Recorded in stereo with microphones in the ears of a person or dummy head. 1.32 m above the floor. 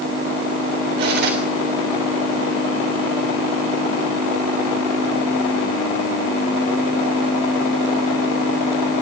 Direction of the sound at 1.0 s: 65° right (ahead or behind).